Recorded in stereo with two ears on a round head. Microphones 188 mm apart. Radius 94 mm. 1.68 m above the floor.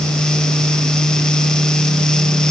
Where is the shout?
I don't hear a shout.